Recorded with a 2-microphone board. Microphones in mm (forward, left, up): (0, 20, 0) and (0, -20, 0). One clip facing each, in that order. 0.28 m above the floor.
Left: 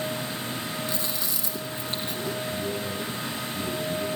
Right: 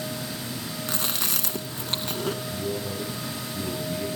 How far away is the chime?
I don't hear a chime.